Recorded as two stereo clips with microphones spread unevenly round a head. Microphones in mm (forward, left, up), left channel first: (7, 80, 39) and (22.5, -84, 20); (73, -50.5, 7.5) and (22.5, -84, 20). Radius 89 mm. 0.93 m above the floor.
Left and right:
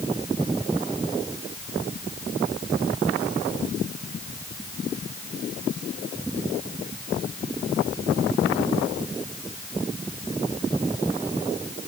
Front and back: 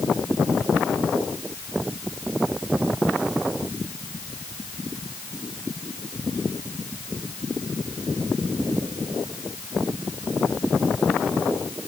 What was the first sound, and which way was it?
Only background noise.